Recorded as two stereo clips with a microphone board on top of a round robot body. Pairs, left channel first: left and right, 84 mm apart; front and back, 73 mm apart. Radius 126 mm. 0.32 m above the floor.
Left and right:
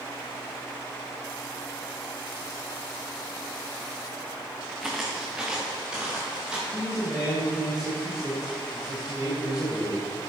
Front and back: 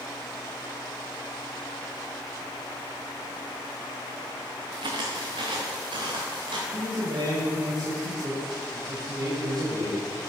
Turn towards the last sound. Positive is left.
turn(degrees=-170)